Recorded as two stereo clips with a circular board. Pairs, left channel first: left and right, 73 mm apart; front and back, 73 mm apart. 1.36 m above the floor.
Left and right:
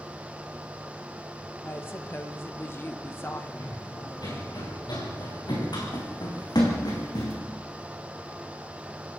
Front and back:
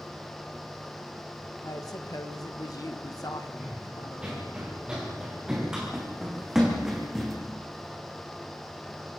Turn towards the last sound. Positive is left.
turn(degrees=90)